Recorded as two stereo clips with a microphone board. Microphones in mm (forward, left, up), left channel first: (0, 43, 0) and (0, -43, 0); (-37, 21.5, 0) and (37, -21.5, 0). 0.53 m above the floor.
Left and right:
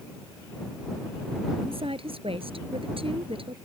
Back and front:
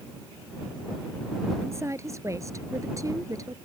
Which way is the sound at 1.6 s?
90° right.